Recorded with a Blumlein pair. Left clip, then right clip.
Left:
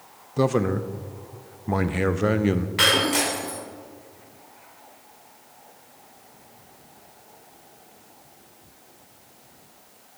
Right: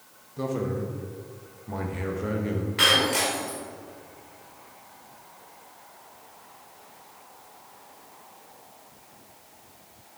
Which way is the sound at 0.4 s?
30° left.